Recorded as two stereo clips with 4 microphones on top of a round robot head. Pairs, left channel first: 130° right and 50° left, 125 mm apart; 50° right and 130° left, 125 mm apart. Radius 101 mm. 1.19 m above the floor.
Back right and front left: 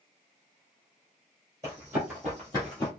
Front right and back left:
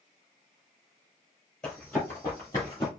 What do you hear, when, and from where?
1.6 s running footsteps: 30° left, 1.2 m; by 2.9 s 95° right, 1.3 m